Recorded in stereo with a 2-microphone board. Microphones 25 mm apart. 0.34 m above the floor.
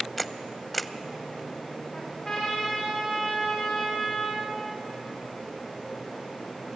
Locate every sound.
0.2 s a camera shutter: 5° left (ahead or behind), 0.6 m
1.9 s a trumpet: 20° left (ahead or behind), 8.5 m